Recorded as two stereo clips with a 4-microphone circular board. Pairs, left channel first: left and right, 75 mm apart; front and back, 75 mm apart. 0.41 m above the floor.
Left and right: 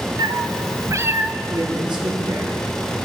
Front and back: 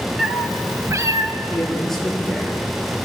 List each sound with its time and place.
0.2 s a cat meowing: 100° right, 1.8 m; by 1.3 s 155° right, 1.7 m
1.5 s a man speaking: 85° right, 7.5 m